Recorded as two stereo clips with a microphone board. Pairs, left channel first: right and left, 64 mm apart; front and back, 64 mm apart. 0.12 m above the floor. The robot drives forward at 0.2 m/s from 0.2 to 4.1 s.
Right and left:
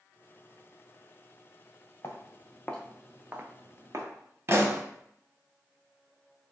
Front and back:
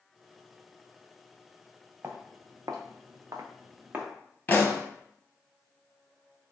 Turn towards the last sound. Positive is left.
turn(degrees=55)